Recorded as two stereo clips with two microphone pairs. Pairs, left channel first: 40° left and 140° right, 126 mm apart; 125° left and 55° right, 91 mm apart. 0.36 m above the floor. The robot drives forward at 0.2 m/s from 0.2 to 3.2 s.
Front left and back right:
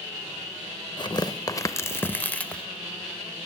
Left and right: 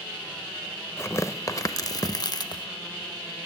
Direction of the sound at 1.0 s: 75° left.